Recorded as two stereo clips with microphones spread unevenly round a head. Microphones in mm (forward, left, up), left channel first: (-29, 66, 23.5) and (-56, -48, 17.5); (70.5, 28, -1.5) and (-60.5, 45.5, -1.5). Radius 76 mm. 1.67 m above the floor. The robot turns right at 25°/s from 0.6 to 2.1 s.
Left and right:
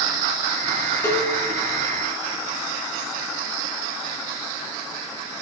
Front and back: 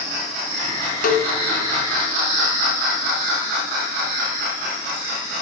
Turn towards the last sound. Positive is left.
turn(degrees=30)